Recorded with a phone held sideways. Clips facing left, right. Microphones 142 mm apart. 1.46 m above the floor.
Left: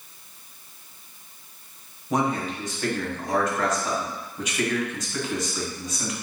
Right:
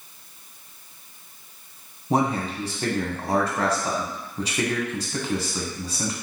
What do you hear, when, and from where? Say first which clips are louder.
2.1 s a man speaking: right 2 dB; 30° right (ahead or behind), 1.0 m